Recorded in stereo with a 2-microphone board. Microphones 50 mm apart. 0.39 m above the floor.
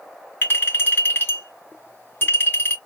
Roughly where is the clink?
Left.